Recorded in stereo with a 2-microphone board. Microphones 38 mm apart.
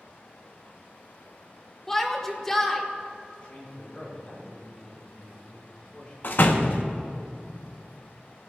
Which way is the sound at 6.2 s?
60° left (ahead or behind).